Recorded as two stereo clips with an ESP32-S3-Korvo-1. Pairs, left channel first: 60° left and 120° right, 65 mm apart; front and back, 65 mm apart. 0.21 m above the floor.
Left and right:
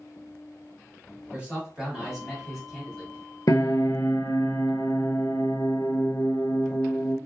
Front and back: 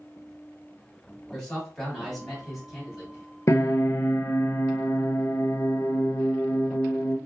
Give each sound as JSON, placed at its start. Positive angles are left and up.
{"t": 1.3, "sound": "a man speaking", "azimuth_deg": -75, "distance_m": 1.8}
{"t": 3.5, "sound": "a piano", "azimuth_deg": 35, "distance_m": 0.5}